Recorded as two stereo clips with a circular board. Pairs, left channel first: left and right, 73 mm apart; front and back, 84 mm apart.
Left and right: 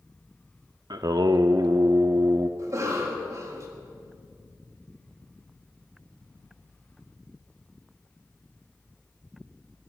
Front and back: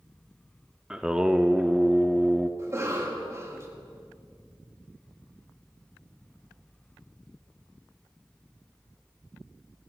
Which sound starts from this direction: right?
Singing, at 0.9 s.